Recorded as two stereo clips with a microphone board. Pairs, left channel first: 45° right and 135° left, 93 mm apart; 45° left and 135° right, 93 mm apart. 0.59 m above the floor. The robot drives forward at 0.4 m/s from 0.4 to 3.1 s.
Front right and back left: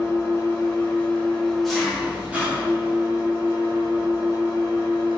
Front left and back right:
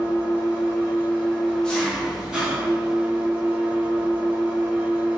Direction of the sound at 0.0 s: 5° left.